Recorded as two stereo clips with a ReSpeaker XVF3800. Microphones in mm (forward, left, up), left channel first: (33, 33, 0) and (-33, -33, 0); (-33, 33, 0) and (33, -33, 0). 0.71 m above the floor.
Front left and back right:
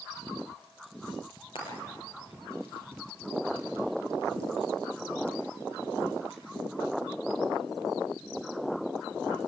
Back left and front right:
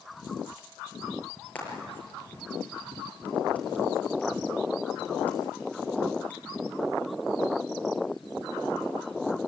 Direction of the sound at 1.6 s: 60° left.